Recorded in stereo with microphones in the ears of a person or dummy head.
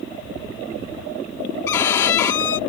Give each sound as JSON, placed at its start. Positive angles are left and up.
{"t": 1.7, "sound": "a violin", "side_deg": 15}